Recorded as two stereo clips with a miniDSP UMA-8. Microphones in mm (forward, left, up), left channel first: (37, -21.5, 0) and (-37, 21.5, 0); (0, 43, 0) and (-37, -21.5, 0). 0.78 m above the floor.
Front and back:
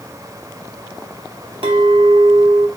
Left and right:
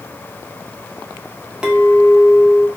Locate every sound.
1.6 s a clink: 160° left, 0.7 m